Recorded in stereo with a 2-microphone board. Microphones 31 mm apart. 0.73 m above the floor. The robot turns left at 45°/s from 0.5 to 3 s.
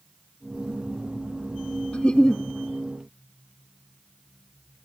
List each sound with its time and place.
1.9 s a giggle: 40° left (ahead or behind), 0.5 m; by 2.4 s 20° left (ahead or behind), 0.5 m